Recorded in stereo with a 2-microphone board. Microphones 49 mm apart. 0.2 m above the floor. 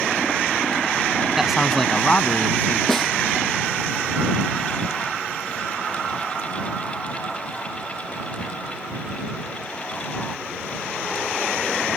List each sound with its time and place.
1.4 s a man speaking: 10° right (ahead or behind); by 2.8 s 40° left (ahead or behind)
2.9 s a snare drum: 5° left (ahead or behind)